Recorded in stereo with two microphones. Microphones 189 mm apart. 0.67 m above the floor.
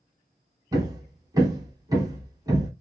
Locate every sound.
0.7 s hammering: 20° right (ahead or behind), 1.3 m